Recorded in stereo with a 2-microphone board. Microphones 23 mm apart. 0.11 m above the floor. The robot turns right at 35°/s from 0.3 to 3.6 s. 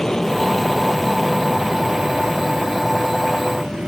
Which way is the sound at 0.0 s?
150° left.